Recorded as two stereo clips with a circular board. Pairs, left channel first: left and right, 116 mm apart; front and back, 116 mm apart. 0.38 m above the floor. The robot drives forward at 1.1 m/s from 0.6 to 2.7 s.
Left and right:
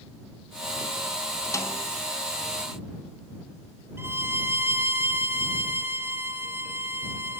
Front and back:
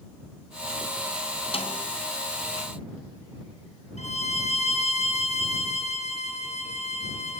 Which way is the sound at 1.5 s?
30° left.